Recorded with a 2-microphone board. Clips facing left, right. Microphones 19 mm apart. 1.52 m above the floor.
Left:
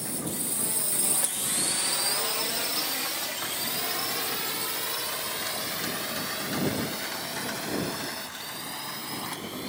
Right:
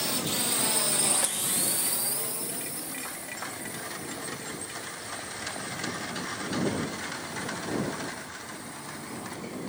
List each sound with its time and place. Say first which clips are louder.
0.0 s a drone: right 5 dB; 50° right (ahead or behind); by 9.7 s 85° left